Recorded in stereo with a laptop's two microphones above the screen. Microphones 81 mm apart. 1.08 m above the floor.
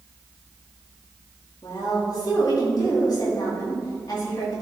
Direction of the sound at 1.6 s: 50° left (ahead or behind).